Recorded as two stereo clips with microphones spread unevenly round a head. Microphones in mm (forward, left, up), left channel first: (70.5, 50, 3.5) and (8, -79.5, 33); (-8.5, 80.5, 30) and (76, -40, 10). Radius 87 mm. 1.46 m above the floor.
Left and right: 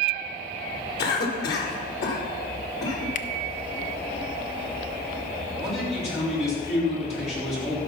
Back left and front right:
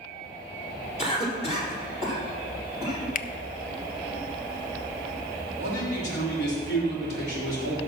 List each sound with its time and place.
1.0 s a cough: 75° left, 4.5 m
3.1 s a finger snap: 115° left, 0.5 m
5.6 s a man speaking: 120° left, 5 m